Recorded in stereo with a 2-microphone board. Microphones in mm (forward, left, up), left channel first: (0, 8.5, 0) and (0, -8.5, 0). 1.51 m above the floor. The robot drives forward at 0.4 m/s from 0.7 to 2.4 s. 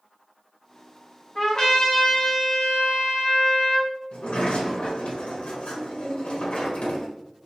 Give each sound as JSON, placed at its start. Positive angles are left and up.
{"t": 1.4, "sound": "a trumpet", "side_deg": 35, "distance_m": 1.4}
{"t": 4.1, "sound": "a sliding door", "side_deg": 65, "distance_m": 1.1}